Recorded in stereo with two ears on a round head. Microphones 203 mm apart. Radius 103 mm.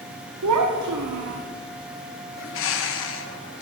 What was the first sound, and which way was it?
A child speaking, 85° right.